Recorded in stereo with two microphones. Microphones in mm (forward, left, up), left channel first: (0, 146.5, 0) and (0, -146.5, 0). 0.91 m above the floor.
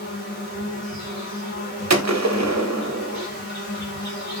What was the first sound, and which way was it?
An insect, 60° left (ahead or behind).